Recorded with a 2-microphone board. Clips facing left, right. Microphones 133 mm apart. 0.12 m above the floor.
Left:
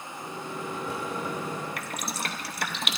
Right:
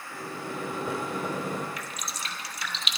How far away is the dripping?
About 0.5 m.